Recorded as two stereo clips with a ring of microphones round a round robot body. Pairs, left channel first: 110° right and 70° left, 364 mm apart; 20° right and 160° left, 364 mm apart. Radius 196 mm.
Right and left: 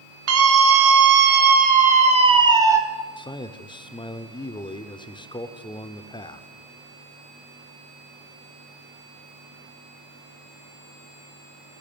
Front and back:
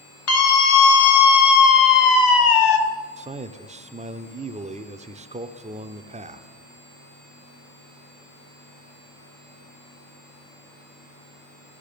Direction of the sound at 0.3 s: 25° left.